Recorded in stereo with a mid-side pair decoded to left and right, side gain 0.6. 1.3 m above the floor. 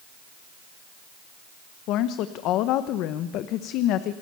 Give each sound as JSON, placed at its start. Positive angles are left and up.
{"t": 1.9, "sound": "a woman speaking", "azimuth_deg": 65, "distance_m": 1.0}